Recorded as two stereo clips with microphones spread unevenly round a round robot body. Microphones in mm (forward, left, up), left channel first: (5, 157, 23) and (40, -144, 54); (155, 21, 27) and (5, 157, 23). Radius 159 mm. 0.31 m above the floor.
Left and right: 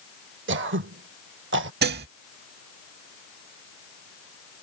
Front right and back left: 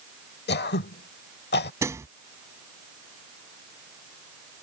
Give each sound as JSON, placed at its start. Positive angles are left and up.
{"t": 0.5, "sound": "throat clearing", "azimuth_deg": -35}
{"t": 1.8, "sound": "dishes clattering", "azimuth_deg": -145}